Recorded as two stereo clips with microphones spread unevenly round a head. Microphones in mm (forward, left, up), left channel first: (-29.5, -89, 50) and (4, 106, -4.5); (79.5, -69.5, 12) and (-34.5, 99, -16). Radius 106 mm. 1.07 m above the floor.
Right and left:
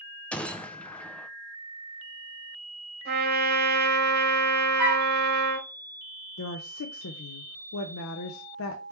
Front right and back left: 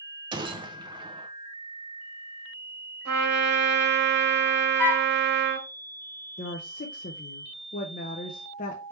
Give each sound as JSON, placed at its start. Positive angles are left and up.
{"t": 0.3, "sound": "a gunshot", "azimuth_deg": 155, "distance_m": 0.5}
{"t": 3.0, "sound": "a trumpet", "azimuth_deg": 125, "distance_m": 1.5}
{"t": 4.8, "sound": "a flute", "azimuth_deg": 30, "distance_m": 0.7}
{"t": 6.4, "sound": "a woman speaking", "azimuth_deg": -110, "distance_m": 0.6}